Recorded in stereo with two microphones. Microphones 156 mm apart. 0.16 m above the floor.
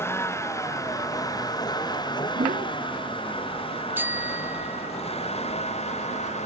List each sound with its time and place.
0.0 s a vehicle: 15° left (ahead or behind); by 6.5 s 45° left (ahead or behind)
2.4 s a whoosh: 70° right (ahead or behind)
4.0 s a bicycle bell: 15° right (ahead or behind)